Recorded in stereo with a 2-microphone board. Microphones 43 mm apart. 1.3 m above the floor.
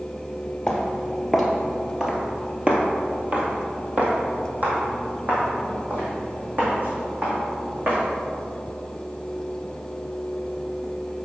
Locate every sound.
0.7 s footsteps: 5° left (ahead or behind), 1.5 m; by 8.0 s 45° right (ahead or behind), 4.5 m